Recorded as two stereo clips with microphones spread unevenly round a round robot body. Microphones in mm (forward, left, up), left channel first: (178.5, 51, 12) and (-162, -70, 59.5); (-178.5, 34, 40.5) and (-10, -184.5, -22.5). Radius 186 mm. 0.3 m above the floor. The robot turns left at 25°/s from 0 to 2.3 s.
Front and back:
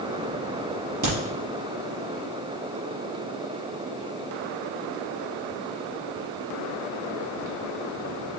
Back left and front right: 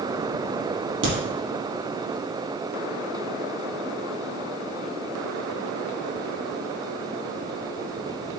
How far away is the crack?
About 4.5 m.